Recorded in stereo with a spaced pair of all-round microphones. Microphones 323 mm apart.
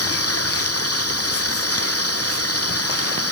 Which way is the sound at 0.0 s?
50° left (ahead or behind).